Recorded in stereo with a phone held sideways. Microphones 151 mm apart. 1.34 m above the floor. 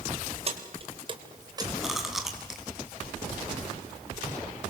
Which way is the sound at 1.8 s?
Centre (ahead or behind).